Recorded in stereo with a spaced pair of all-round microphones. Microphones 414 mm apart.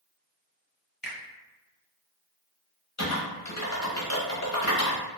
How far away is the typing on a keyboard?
About 0.7 m.